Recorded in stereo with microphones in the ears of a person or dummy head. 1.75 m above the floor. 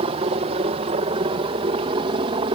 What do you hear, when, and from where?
0.0 s a helicopter: 35° right (ahead or behind); by 2.6 s 30° right (ahead or behind)